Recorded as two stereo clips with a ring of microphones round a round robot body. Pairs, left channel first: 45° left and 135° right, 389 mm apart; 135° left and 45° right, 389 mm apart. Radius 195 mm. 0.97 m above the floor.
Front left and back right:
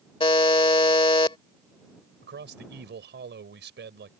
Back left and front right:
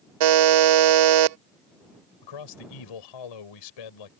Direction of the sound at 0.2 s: 30° right.